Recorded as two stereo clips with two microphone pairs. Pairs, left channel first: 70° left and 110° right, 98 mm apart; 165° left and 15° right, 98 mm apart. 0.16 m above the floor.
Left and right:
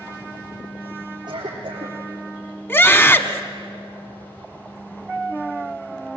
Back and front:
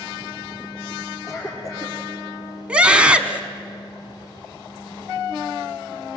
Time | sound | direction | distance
1.3 | a cough | 150° right | 3.5 m
2.7 | a scream | 45° left | 1.1 m